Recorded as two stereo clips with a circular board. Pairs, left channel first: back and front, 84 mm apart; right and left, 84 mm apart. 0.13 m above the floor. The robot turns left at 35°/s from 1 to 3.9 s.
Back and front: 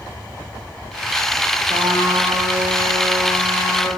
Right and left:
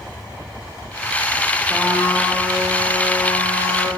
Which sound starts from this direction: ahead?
A trumpet, at 1.7 s.